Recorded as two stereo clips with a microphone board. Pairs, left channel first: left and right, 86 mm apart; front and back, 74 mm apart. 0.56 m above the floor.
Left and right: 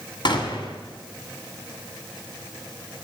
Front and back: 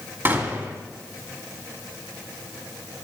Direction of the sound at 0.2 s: 120° left.